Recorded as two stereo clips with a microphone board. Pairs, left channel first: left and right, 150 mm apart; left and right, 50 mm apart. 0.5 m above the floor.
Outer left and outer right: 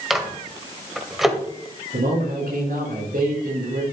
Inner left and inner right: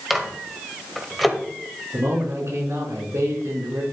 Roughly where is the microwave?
Centre.